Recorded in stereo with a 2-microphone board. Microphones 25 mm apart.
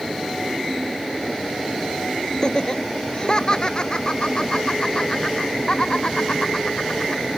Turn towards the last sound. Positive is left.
turn(degrees=45)  # may be behind; listen again after turning